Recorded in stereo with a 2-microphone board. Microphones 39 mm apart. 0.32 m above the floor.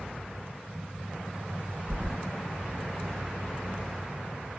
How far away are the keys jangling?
About 1.5 m.